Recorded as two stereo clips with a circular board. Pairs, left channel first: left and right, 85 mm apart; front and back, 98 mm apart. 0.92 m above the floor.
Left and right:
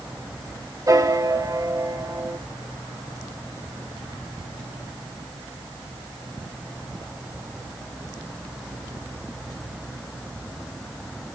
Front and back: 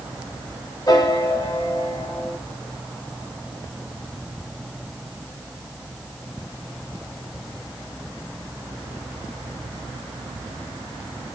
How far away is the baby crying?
I don't hear a baby crying.